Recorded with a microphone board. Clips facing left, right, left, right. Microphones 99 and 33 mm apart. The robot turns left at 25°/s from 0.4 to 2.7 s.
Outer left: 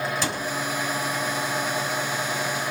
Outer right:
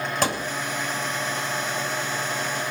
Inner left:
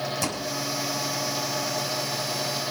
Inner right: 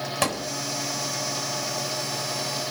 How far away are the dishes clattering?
I don't hear dishes clattering.